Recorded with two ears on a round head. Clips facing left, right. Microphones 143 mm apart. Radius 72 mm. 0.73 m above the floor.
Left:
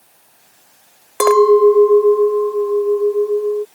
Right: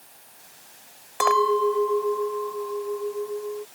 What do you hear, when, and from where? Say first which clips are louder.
1.2 s a clink: left 12 dB; 65° left (ahead or behind)